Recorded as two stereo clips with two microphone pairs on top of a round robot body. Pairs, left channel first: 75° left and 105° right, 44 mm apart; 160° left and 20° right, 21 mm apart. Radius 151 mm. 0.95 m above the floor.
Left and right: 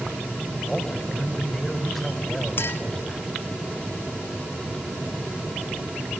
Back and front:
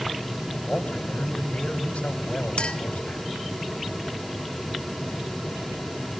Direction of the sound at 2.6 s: 115° left.